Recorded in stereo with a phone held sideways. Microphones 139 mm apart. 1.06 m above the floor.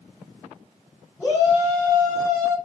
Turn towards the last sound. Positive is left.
turn(degrees=70)  # may be behind; listen again after turning